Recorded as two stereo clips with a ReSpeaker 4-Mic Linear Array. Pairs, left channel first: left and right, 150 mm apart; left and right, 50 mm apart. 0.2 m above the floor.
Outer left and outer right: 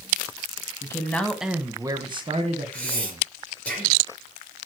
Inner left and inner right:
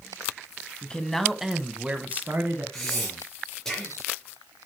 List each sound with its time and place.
0.8 s a man speaking: 20° left (ahead or behind), 1.3 m; by 3.2 s 55° right (ahead or behind), 2 m
2.7 s breathing: 10° left (ahead or behind), 4 m